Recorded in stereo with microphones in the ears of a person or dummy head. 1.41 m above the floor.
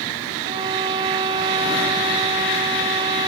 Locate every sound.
0.5 s a violin: 25° right (ahead or behind)